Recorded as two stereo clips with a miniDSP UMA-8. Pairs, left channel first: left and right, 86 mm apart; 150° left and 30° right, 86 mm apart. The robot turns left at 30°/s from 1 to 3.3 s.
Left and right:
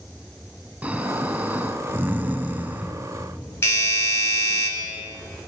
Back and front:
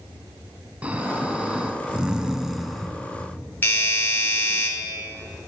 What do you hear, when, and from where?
0.8 s snoring: 65° right, 0.6 m; by 2.9 s 120° right, 0.6 m
3.6 s a doorbell: 105° left, 2.0 m